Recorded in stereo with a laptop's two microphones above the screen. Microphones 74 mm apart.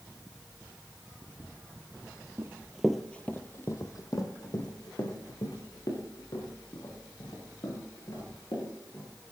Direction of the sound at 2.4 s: 30° right (ahead or behind).